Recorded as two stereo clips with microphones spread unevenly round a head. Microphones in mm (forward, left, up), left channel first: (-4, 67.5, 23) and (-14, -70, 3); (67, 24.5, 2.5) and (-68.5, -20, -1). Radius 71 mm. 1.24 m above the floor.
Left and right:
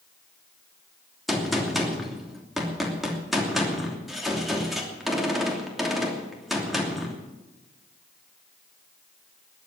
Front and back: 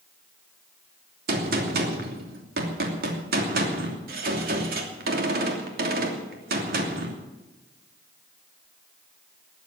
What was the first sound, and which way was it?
A gunshot, straight behind.